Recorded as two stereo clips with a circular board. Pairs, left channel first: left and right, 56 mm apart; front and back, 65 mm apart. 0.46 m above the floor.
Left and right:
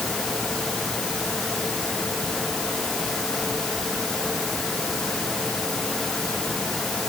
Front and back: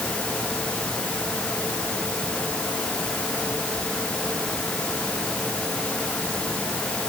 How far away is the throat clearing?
No throat clearing in this recording.